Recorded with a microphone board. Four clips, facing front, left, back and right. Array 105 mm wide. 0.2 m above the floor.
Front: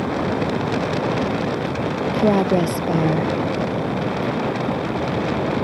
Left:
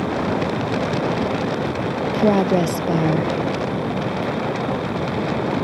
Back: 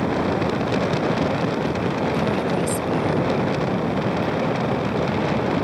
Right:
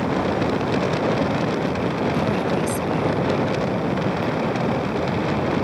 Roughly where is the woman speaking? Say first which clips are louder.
Left 5 dB, front 5 dB; ahead left.